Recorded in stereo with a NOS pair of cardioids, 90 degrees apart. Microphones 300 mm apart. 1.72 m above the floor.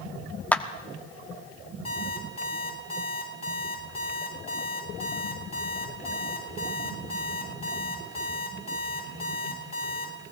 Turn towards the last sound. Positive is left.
turn(degrees=20)